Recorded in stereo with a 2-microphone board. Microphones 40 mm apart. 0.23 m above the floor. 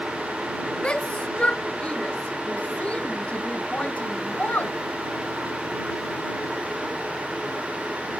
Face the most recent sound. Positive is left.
turn(degrees=40)  # may be behind; listen again after turning